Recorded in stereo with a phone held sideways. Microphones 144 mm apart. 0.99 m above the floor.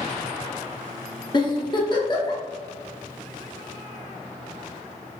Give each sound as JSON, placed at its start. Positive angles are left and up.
{"t": 1.3, "sound": "a giggle", "side_deg": 30, "distance_m": 0.6}